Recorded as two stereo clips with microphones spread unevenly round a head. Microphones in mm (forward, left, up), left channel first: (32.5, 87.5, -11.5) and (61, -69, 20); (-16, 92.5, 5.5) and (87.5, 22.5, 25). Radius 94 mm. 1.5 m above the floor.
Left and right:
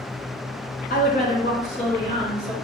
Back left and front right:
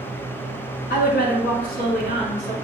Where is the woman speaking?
150° left, 0.8 m; by 2.5 s 165° left, 1.7 m.